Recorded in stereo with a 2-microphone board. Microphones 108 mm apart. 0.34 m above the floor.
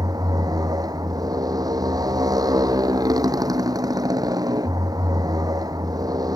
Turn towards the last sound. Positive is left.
turn(degrees=-35)  # may be behind; listen again after turning